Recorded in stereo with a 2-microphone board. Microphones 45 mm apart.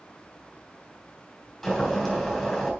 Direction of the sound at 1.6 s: 5° left (ahead or behind).